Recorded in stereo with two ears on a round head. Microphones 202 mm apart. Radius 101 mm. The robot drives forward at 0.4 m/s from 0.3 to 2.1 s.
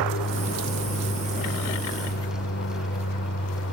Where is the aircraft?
55° left (ahead or behind).